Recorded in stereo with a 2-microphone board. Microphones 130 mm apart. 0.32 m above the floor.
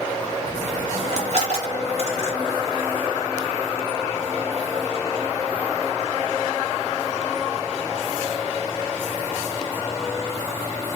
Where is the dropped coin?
55° right (ahead or behind), 0.8 m.